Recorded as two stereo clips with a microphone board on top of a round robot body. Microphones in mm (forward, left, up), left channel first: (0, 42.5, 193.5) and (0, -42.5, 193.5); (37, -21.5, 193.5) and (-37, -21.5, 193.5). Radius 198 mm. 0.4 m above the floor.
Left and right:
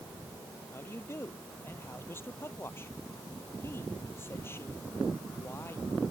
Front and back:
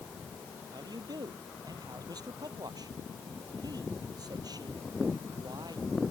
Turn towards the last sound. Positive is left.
turn(degrees=150)